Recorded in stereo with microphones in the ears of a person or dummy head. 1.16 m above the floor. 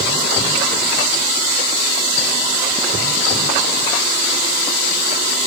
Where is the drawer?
No drawer in this recording.